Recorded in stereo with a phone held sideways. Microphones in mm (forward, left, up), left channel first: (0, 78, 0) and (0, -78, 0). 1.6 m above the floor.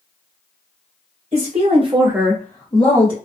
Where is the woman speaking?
45° right (ahead or behind), 1.1 m; by 3.1 s 35° left (ahead or behind), 1.2 m.